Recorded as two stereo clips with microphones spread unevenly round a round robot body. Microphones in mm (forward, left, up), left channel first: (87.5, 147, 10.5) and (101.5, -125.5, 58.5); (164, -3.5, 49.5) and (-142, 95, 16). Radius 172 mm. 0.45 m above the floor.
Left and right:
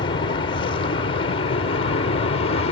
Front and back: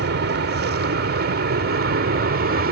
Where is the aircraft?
140° left; by 2.7 s 135° left.